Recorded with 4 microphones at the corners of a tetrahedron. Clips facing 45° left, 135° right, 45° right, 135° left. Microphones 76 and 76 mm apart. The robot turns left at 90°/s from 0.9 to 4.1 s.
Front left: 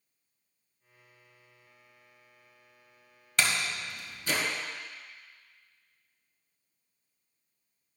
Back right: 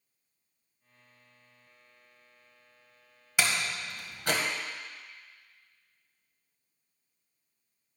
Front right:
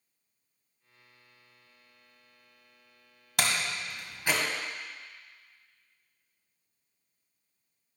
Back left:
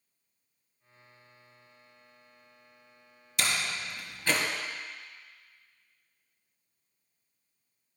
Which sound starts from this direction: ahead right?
A door slam, at 3.4 s.